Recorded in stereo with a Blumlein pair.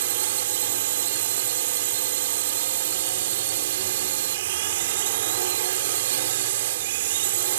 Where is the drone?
55° right.